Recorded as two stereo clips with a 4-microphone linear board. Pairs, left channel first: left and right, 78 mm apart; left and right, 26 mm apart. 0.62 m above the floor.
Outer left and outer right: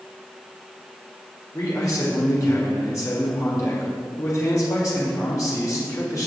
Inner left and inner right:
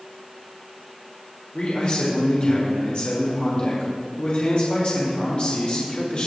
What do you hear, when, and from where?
1.5 s a man speaking: 50° left (ahead or behind), 1.9 m